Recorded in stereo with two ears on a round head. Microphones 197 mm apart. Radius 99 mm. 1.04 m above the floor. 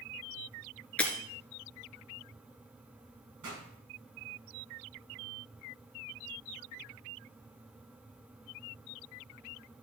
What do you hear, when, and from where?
1.0 s breaking glass: 5° left (ahead or behind), 1.7 m
3.4 s a pop: 85° right, 7 m